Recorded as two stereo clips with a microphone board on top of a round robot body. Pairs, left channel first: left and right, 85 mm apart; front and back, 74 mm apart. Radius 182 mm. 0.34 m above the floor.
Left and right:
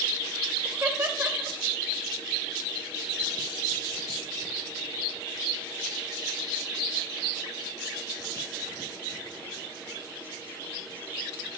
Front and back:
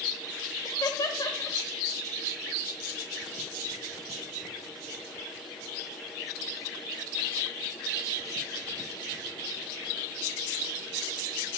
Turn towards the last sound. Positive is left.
turn(degrees=-25)